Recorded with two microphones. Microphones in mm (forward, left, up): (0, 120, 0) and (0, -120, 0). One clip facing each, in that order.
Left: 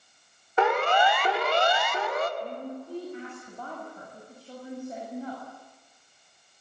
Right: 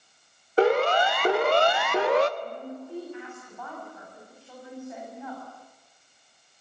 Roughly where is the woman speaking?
Left.